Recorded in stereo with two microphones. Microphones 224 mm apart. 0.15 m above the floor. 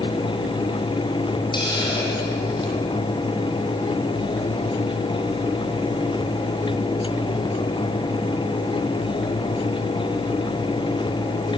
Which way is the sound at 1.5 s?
20° left (ahead or behind).